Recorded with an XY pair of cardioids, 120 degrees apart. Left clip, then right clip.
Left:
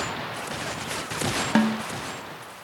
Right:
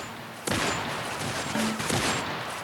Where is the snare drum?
60° left, 1.0 m.